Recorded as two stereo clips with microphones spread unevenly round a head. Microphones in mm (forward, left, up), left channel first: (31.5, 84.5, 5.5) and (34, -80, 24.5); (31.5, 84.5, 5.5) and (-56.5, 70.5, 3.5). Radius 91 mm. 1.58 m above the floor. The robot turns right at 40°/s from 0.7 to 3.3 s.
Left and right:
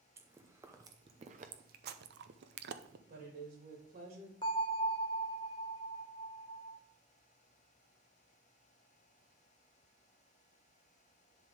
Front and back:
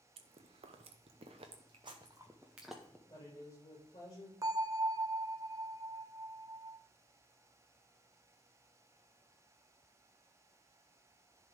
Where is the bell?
155° left, 0.7 m.